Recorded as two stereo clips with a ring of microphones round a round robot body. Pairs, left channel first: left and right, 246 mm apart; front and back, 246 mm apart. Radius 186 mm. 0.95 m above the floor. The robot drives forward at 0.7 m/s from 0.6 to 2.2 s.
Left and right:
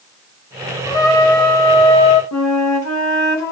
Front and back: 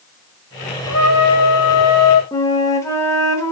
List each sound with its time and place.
0.9 s a trumpet: 15° left, 2 m; by 2.2 s 25° left, 1.2 m
2.3 s a flute: 80° left, 3 m